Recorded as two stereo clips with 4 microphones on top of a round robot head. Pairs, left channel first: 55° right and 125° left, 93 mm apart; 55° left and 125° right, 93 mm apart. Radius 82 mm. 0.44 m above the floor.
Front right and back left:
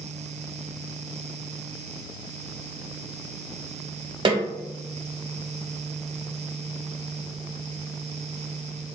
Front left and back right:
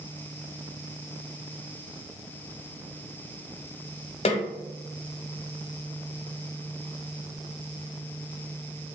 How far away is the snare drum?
About 0.6 m.